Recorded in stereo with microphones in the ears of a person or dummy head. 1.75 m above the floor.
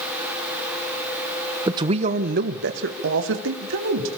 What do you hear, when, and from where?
1.7 s a man speaking: 15° right (ahead or behind), 1.1 m; by 4.1 s 80° right, 3.5 m